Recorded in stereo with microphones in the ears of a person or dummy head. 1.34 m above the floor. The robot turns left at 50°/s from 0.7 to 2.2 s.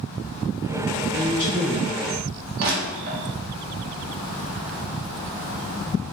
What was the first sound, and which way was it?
A woman speaking, 60° left.